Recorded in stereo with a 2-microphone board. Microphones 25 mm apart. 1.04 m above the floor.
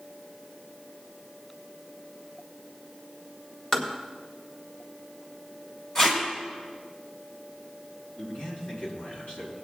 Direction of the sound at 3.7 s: 30° left (ahead or behind).